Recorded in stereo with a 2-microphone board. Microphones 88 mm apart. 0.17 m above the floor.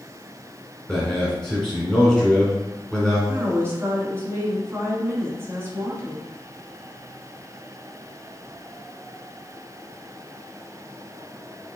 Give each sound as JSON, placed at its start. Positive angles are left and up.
{"t": 0.9, "sound": "a man speaking", "side_deg": 5, "distance_m": 1.6}
{"t": 3.3, "sound": "a woman speaking", "side_deg": -30, "distance_m": 1.3}